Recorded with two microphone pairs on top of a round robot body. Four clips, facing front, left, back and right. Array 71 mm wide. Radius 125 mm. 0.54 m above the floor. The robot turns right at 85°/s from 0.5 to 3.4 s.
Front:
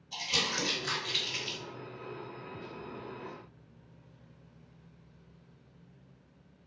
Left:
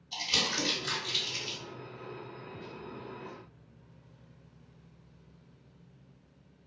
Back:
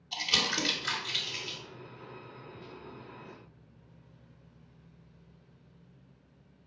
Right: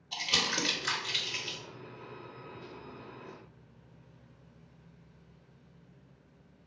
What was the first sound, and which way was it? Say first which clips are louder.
Crumpling: right 1 dB, back 2 dB; 130° right.